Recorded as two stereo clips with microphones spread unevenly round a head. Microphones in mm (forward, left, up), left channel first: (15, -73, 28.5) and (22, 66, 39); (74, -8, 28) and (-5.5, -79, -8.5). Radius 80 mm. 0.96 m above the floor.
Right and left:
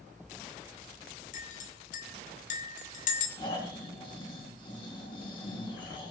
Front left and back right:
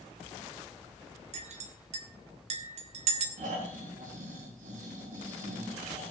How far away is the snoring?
About 5 m.